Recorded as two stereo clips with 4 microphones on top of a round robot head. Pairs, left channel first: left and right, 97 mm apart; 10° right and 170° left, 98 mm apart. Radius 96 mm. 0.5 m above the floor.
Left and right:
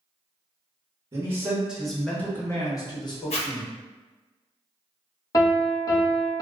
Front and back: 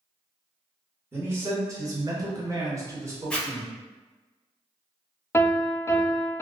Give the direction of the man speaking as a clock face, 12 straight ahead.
4 o'clock.